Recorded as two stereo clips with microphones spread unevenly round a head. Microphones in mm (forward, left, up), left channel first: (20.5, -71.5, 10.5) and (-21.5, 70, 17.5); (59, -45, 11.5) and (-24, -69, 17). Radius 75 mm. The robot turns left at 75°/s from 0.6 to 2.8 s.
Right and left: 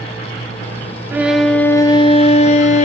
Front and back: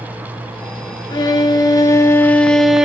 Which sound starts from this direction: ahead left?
A violin, at 1.1 s.